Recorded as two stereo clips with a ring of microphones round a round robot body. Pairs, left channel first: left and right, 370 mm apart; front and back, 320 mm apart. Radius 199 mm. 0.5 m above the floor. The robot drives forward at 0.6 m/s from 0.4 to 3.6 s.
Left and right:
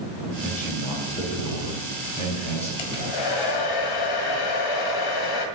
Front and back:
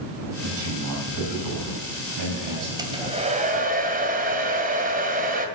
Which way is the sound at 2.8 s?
100° left.